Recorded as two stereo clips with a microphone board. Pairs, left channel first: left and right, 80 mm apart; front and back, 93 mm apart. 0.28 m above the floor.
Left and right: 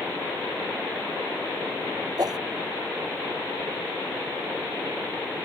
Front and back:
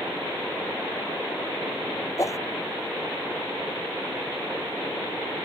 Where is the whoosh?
55° right.